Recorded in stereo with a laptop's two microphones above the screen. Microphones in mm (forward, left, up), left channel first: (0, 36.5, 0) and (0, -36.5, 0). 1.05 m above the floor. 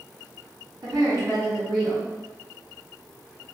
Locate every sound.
0.8 s a woman speaking: 75° right (ahead or behind), 1.8 m